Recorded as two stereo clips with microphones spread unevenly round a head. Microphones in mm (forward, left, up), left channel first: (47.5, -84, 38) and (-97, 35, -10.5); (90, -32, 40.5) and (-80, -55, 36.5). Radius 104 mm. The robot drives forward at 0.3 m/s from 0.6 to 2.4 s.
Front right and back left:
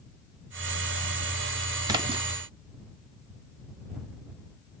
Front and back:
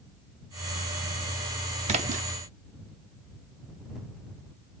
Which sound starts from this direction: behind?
A splash, at 1.9 s.